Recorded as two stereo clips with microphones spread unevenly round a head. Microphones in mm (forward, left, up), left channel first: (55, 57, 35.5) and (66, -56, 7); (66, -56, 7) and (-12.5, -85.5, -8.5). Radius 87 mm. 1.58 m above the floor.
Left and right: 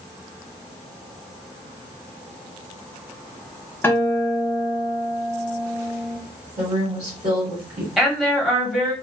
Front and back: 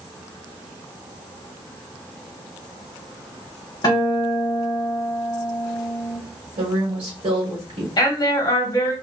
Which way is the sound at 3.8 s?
35° left.